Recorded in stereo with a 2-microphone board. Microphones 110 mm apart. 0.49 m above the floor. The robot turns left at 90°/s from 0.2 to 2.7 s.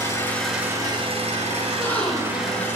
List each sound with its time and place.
0.0 s an engine running: 25° left, 1.9 m; by 2.8 s 160° left, 1.9 m
1.6 s a gasp: 40° left, 1.2 m; by 2.7 s 50° right, 1.2 m